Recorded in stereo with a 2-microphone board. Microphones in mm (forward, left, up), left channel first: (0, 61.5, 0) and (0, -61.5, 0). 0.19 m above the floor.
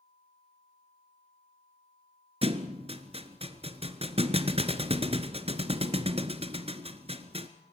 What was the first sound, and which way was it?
A thud, 55° right (ahead or behind).